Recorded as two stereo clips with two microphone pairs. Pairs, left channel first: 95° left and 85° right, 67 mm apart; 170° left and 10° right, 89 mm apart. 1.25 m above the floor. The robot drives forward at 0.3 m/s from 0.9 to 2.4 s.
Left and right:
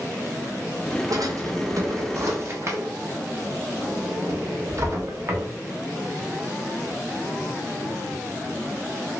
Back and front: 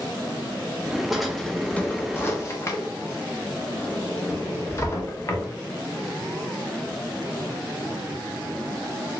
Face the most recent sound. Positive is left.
turn(degrees=-130)